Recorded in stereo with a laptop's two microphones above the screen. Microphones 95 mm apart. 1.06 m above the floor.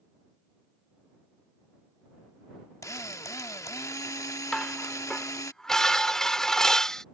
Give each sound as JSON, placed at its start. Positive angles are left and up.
{"t": 2.8, "sound": "a drill", "side_deg": 30}
{"t": 4.5, "sound": "dishes clattering", "side_deg": 5}